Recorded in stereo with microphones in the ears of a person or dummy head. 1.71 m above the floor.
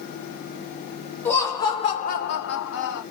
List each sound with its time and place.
1.2 s laughter: 10° left (ahead or behind), 0.9 m; by 3.0 s 55° left (ahead or behind), 0.8 m